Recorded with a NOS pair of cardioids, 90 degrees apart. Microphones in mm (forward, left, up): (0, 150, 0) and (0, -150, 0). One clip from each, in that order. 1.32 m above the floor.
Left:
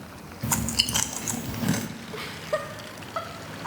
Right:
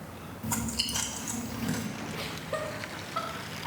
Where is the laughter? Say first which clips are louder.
Left 6 dB; 20° left, 0.6 m.